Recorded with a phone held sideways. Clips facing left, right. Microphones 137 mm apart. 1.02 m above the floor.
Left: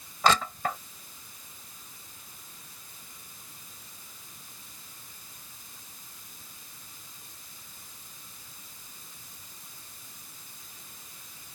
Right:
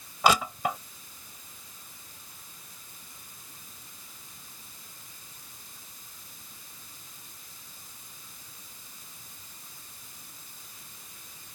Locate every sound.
0.2 s crushing: 10° right (ahead or behind)